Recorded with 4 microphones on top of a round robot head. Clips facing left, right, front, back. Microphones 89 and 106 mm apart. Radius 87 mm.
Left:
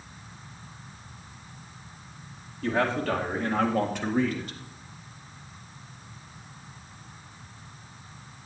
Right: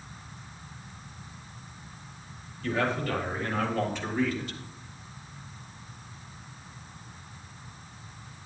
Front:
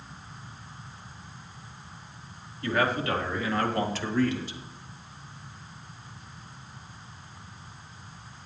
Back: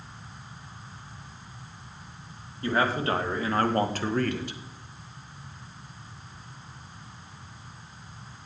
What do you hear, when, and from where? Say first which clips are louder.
2.6 s a man speaking: left 3 dB, back 1 dB; 120° left, 2.5 m; by 4.6 s 150° left, 1.4 m